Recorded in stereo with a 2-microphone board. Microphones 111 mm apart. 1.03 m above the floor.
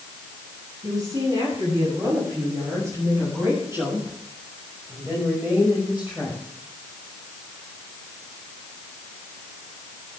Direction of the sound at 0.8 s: 35° right (ahead or behind).